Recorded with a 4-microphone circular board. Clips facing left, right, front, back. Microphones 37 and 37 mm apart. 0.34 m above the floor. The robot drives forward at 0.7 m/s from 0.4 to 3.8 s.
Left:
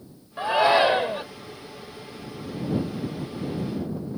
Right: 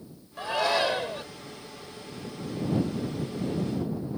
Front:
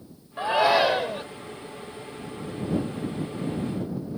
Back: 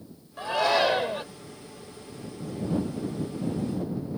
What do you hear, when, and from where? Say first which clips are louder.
0.4 s a shout: left 7 dB, front 3 dB; 40° left; by 1.2 s 120° left